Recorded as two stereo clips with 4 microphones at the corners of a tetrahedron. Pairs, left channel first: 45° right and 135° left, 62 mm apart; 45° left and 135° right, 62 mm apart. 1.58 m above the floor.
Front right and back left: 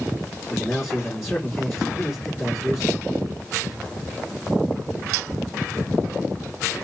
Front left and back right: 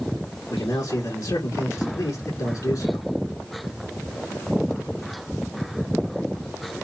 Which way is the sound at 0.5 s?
45° left.